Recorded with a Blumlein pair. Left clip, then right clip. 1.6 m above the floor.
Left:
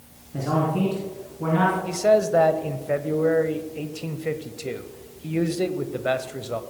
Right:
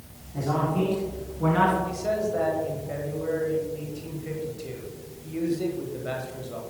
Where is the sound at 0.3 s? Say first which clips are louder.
Left 2 dB; 20° left, 3.5 m; by 1.8 s 10° right, 3 m.